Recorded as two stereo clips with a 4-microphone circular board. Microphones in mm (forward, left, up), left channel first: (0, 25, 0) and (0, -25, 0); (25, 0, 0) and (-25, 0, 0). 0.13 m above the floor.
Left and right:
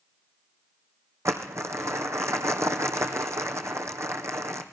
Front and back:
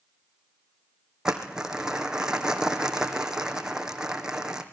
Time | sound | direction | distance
1.2 | crumpling | 105° right | 2 m